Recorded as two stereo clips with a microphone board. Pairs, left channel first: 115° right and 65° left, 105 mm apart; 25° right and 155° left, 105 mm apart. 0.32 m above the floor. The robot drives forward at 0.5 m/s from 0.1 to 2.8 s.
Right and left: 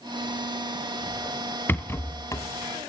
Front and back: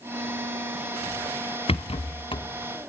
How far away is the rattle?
About 1.3 m.